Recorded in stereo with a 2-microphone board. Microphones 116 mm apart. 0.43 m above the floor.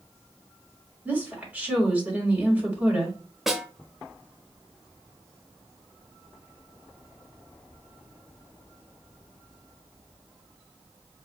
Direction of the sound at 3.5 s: 5° right (ahead or behind).